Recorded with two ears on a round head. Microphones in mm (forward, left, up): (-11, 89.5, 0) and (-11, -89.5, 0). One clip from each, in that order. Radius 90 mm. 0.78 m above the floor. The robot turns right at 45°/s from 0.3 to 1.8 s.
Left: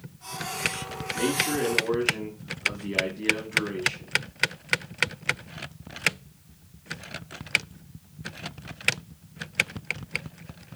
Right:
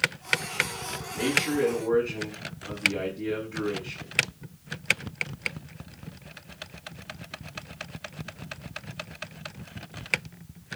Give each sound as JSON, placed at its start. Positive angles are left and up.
{"t": 1.1, "sound": "a man speaking", "side_deg": -5, "distance_m": 5.5}